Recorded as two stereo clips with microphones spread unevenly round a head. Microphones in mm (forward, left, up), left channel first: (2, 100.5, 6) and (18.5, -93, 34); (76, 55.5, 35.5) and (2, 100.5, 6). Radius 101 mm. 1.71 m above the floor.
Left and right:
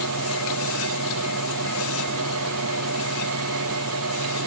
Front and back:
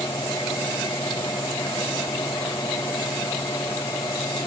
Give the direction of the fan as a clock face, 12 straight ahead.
3 o'clock.